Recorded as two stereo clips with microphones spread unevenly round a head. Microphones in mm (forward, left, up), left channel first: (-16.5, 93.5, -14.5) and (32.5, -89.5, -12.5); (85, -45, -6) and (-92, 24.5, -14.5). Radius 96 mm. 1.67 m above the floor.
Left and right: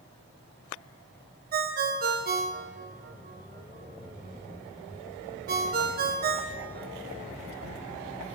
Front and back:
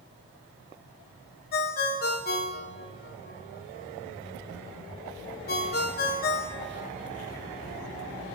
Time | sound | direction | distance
1.5 | a ringtone | 45° right | 1.3 m